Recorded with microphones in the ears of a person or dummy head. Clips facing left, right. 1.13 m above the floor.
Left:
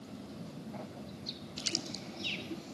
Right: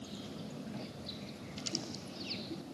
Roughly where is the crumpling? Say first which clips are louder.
Even; centre.